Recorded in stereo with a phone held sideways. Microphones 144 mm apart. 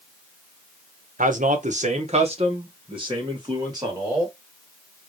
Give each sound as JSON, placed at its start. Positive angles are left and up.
{"t": 1.2, "sound": "a man speaking", "side_deg": -65, "distance_m": 0.9}